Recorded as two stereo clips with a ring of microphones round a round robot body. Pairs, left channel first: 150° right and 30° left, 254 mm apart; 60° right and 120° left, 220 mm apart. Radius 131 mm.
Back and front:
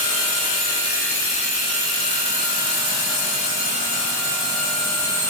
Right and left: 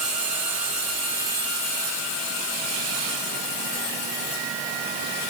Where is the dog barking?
I don't hear a dog barking.